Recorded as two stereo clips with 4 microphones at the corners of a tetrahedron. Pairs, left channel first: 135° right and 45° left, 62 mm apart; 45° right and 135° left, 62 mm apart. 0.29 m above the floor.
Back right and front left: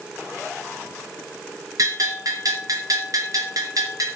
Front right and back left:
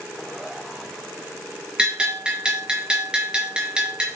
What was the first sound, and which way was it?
A bell, 60° left.